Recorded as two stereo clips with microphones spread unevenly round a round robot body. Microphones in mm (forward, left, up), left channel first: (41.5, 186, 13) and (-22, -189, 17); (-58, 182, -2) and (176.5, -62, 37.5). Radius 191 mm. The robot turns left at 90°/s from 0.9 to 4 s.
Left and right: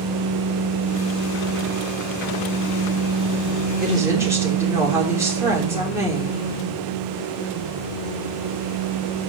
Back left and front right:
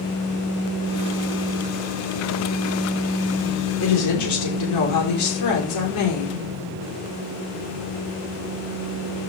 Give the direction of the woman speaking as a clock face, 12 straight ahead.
5 o'clock.